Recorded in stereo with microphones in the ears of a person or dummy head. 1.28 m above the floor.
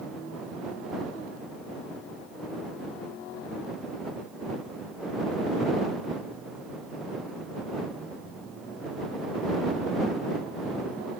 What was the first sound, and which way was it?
Only background noise.